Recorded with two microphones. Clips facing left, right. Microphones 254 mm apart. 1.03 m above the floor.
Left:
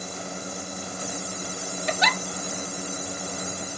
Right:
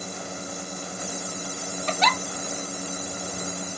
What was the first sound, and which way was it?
A giggle, 15° left (ahead or behind).